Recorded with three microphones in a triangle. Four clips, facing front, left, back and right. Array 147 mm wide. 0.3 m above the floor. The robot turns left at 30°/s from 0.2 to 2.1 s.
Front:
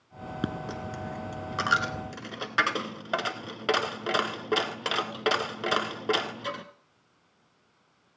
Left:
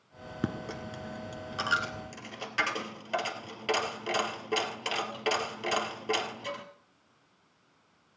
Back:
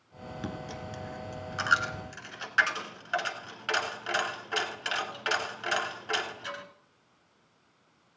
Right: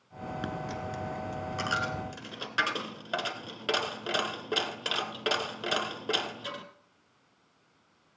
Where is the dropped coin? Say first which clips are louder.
Left 2 dB, front 5 dB; 40° left, 1.1 m; by 6.6 s 10° right, 1.1 m.